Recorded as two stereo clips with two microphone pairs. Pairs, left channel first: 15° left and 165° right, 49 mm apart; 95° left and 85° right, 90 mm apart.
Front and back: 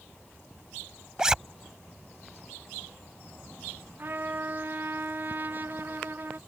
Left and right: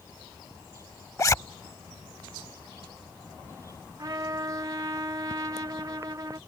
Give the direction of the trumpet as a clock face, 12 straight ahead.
4 o'clock.